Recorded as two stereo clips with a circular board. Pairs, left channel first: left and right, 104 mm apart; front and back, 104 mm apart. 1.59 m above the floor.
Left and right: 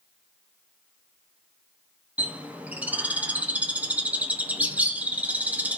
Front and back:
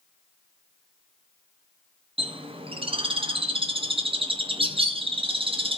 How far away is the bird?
About 0.7 m.